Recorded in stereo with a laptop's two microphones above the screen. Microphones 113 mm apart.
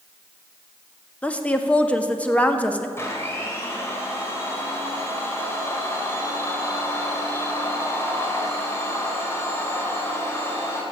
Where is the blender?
25° left (ahead or behind), 3 m.